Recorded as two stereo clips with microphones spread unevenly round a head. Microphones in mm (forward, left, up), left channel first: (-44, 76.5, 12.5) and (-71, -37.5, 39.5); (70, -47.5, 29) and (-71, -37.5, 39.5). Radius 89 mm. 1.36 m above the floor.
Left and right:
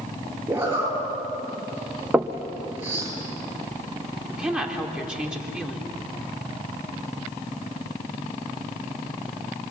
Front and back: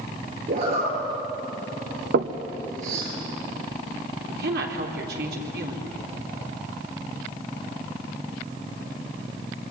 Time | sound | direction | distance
0.5 | a zipper | 170° right | 9 m
2.1 | knocking | 175° right | 1.1 m
4.3 | a woman speaking | 175° left | 3.5 m